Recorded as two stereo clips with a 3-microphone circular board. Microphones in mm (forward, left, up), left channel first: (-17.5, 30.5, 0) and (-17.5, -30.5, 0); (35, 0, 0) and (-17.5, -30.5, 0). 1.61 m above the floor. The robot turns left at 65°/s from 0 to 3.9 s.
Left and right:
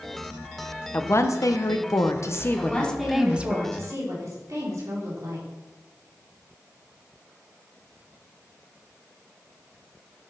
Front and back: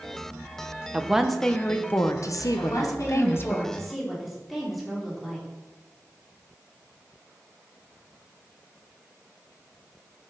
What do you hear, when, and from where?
0.9 s a woman speaking: 140° left, 0.9 m; by 3.6 s 30° right, 0.9 m
2.6 s a woman speaking: 25° left, 3.5 m; by 5.5 s 60° right, 3.5 m